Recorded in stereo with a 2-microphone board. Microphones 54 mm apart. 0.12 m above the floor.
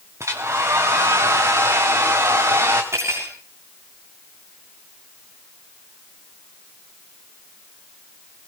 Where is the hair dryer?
65° right (ahead or behind), 3.5 m.